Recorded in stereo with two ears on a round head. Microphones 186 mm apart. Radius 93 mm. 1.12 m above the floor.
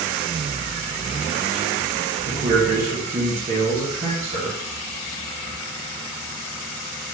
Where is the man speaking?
30° right (ahead or behind), 1.6 m.